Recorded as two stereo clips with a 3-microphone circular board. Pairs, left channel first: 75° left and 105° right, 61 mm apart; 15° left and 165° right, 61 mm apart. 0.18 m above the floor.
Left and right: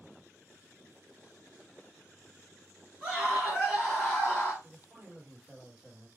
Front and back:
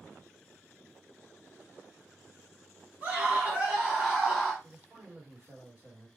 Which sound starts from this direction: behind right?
A scream, at 3.0 s.